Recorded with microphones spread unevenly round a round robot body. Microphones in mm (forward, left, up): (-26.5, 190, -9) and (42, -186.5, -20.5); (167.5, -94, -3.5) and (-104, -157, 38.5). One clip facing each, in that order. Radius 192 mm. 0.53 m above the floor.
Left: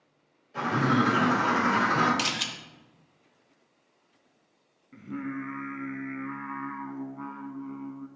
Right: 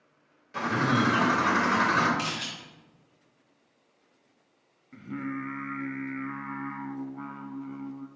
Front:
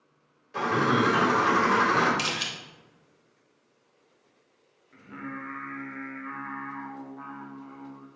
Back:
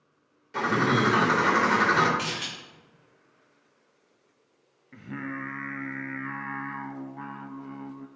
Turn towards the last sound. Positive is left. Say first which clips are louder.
# even, back 4 dB
turn(degrees=-160)